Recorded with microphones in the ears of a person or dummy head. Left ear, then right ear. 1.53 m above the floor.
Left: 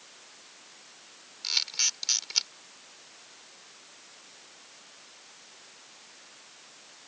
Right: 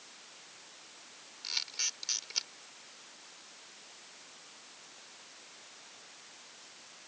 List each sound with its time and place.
1.4 s a camera shutter: 20° left (ahead or behind)